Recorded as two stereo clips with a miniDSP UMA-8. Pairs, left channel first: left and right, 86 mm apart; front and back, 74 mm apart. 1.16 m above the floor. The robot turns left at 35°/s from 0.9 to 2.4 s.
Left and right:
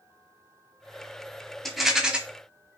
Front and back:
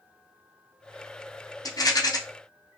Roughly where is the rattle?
Ahead.